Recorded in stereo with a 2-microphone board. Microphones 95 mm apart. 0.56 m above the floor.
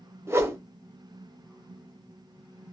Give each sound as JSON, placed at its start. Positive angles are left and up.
{"t": 0.3, "sound": "a whoosh", "side_deg": -25, "distance_m": 0.5}